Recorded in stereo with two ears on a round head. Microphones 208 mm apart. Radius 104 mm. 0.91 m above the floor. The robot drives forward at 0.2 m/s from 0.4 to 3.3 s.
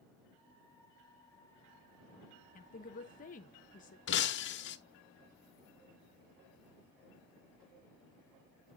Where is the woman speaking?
35° left (ahead or behind), 0.9 m.